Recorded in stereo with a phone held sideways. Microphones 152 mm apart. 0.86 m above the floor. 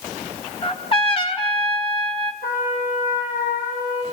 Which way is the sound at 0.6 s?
40° left (ahead or behind).